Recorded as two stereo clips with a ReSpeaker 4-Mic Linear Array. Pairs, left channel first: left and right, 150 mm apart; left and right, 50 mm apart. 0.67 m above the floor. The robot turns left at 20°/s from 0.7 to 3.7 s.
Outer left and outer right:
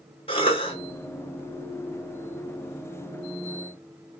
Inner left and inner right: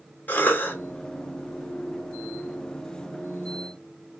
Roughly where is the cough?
Left.